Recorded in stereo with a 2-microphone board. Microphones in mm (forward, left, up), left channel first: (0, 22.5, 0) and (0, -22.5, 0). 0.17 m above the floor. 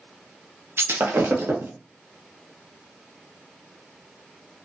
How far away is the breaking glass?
About 0.8 m.